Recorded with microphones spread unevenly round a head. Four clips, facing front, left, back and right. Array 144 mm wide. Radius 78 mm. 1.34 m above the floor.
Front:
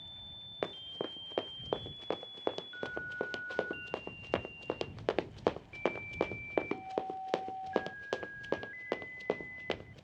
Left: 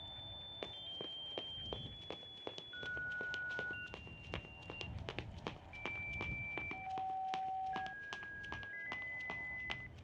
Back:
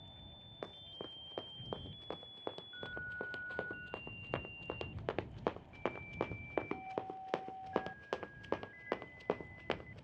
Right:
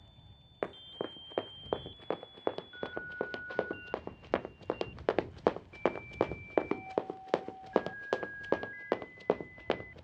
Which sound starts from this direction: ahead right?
Running footsteps, at 0.6 s.